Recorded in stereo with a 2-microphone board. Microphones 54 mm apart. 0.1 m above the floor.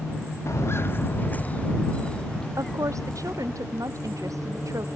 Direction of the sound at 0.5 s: 60° left (ahead or behind).